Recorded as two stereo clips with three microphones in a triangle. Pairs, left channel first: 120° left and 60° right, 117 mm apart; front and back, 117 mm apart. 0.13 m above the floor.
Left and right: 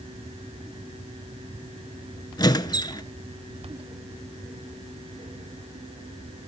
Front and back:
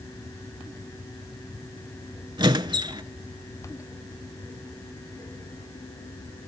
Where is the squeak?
155° left, 0.7 m.